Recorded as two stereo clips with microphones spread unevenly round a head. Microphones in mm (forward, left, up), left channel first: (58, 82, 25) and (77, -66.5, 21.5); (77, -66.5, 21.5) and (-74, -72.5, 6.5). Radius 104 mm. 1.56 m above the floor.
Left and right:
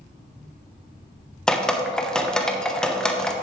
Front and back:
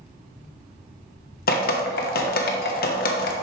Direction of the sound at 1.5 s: 10° left.